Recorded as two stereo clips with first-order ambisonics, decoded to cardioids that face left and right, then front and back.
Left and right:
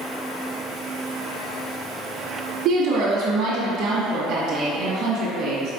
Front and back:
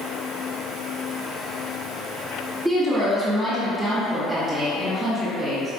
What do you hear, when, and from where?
2.6 s a woman speaking: 105° right, 1.2 m